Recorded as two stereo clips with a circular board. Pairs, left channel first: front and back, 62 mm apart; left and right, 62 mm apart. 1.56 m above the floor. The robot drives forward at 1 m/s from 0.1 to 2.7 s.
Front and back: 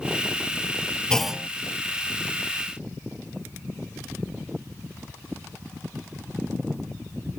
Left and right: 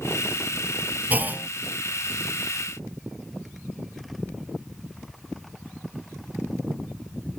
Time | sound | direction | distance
1.1 | a clunk | 60° right | ?